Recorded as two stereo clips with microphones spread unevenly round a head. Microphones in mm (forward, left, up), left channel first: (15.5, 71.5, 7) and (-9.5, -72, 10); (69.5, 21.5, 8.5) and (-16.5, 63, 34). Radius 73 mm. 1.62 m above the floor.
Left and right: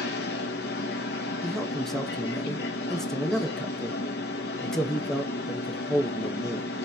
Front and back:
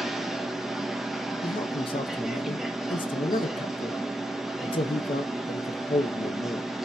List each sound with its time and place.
0.0 s a machine running: 65° left, 0.8 m
1.4 s a man speaking: 5° right, 0.6 m